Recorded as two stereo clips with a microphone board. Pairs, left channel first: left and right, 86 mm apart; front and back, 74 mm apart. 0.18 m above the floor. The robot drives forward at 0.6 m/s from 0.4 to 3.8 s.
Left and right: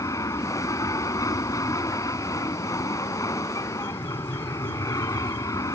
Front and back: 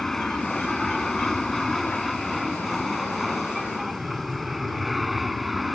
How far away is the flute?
I don't hear a flute.